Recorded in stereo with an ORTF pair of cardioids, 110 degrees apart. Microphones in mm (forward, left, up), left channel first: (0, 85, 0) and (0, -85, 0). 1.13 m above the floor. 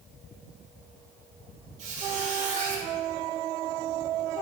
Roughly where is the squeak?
Ahead right.